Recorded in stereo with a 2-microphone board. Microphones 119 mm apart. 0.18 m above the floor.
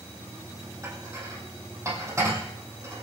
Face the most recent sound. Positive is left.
turn(degrees=-25)  # may be behind; listen again after turning